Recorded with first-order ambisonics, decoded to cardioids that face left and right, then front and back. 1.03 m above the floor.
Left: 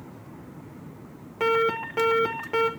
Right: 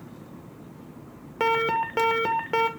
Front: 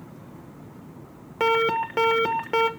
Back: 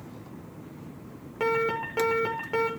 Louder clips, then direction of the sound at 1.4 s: Even, front 5 dB; 40° right.